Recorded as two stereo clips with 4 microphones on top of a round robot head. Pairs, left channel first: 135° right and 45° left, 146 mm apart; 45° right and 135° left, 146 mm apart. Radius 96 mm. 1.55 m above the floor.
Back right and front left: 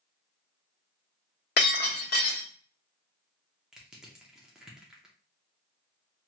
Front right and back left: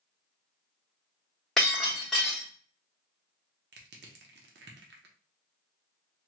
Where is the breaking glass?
130° right, 1.3 m.